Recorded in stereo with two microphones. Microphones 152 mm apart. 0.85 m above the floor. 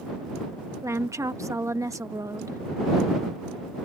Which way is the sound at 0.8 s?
20° right (ahead or behind).